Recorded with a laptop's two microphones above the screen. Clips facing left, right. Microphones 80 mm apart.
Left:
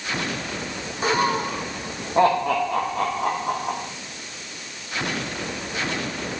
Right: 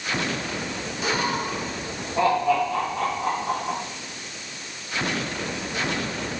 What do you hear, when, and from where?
1.0 s laughter: 40° left (ahead or behind), 1.2 m; by 3.8 s 55° left (ahead or behind), 1.7 m